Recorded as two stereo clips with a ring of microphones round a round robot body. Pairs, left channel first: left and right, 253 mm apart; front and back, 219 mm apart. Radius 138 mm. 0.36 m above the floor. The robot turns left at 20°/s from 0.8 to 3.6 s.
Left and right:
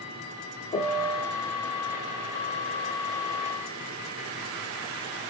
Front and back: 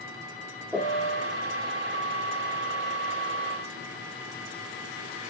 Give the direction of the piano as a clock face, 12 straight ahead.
9 o'clock.